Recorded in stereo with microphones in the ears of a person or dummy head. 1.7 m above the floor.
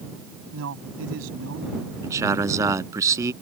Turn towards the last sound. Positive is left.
turn(degrees=-10)  # may be behind; listen again after turning